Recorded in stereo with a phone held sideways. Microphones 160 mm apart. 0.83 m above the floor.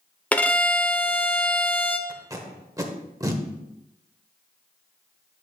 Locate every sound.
0.3 s a violin: 10° left (ahead or behind), 0.5 m
2.1 s tape being pulled: 20° right (ahead or behind), 0.9 m